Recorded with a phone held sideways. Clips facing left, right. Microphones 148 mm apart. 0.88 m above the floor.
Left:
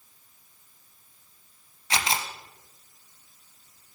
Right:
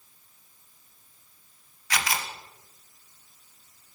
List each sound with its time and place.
1.9 s a camera shutter: 25° left (ahead or behind), 0.7 m